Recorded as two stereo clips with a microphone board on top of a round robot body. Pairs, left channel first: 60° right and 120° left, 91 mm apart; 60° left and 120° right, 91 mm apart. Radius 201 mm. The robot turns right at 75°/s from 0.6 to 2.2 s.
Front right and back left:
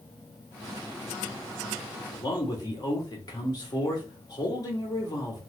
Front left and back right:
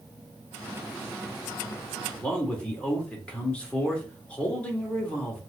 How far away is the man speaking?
About 1.7 m.